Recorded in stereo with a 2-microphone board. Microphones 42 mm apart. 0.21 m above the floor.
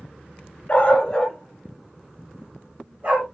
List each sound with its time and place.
0.7 s a dog barking: 35° left (ahead or behind), 1.2 m; by 3.2 s 35° right (ahead or behind), 2.5 m